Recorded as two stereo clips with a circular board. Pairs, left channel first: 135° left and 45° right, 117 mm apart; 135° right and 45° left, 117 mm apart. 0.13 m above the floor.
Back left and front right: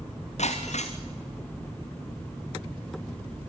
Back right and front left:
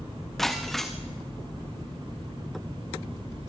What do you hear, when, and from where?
0.4 s breaking glass: 140° left, 1.7 m